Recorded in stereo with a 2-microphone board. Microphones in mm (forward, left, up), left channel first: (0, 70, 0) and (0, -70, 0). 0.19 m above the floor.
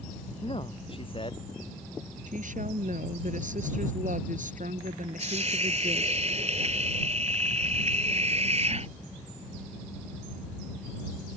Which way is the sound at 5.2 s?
50° right (ahead or behind).